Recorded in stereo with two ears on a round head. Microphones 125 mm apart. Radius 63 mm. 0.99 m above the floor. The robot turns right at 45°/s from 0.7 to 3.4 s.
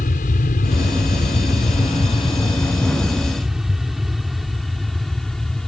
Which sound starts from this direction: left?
An aircraft, at 0.0 s.